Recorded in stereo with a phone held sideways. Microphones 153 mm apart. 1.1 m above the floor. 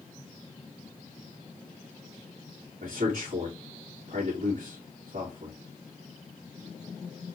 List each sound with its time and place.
2.8 s a man speaking: 90° right, 1.6 m